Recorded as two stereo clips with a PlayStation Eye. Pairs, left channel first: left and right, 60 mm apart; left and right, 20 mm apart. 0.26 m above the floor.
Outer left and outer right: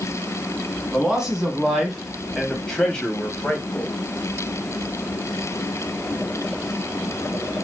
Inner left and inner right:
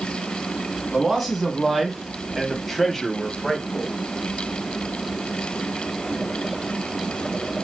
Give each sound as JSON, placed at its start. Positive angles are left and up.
{"t": 0.9, "sound": "a man speaking", "side_deg": -10, "distance_m": 2.0}